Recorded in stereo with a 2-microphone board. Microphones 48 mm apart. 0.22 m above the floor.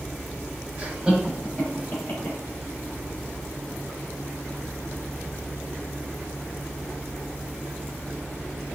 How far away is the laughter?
About 1.1 m.